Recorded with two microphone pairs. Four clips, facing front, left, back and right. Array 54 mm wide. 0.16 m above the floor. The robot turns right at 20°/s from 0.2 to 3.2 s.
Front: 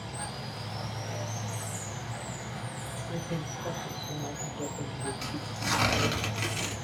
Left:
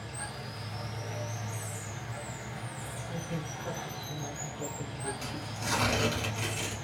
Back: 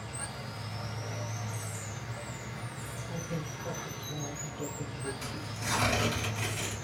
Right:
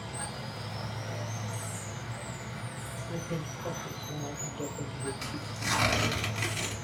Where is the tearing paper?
30° right, 1.5 m.